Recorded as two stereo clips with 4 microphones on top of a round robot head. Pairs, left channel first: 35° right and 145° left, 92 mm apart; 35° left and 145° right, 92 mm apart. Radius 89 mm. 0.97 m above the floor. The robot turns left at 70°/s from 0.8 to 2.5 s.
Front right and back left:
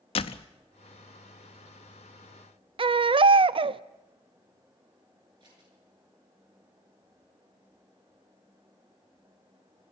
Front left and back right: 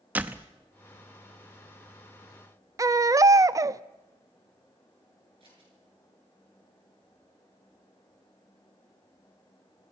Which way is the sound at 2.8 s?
165° left.